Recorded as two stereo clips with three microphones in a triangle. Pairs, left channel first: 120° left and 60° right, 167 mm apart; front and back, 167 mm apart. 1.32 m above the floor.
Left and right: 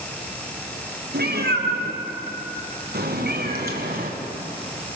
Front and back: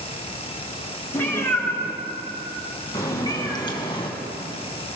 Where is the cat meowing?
75° right, 6 m; by 4.1 s 55° right, 3 m.